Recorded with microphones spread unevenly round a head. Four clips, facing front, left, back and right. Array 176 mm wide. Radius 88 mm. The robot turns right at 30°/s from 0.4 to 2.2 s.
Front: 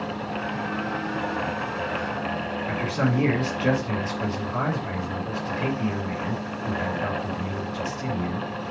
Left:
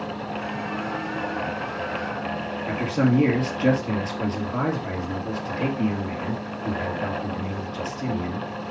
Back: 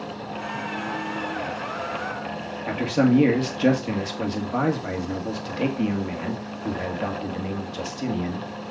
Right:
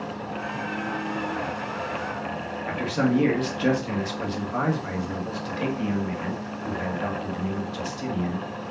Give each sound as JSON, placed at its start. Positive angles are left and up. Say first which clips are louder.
{"t": 2.7, "sound": "a man speaking", "louder": "left 2 dB, back 7 dB", "azimuth_deg": 165, "distance_m": 2.0}